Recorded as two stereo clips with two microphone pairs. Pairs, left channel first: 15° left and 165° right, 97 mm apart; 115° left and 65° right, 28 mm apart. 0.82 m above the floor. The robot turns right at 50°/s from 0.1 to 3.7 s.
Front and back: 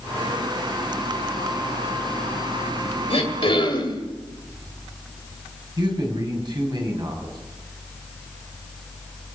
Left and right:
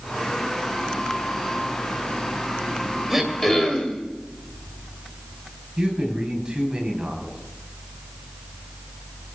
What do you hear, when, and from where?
3.1 s throat clearing: 20° left, 2.5 m; by 4.0 s 50° left, 2.5 m
5.8 s a man speaking: 125° right, 5 m